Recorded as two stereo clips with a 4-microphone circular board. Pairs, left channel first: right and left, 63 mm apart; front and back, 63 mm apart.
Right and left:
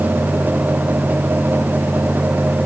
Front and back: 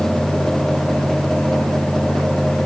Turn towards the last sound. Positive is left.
No sound to turn to.